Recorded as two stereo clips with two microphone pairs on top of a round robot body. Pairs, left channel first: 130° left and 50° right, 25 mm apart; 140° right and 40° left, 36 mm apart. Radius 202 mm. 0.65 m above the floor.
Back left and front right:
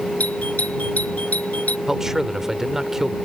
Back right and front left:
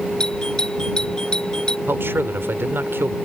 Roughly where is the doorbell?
Behind left.